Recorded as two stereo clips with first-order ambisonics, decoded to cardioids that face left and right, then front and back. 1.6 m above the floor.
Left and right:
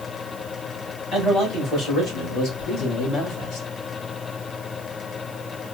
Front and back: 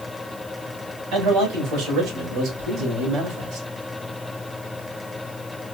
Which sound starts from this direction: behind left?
A man speaking, at 1.1 s.